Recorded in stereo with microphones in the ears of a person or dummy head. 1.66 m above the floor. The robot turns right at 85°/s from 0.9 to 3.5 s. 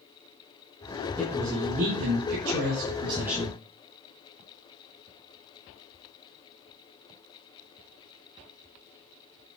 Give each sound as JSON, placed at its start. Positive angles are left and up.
{"t": 1.2, "sound": "a man speaking", "azimuth_deg": 170, "distance_m": 6.5}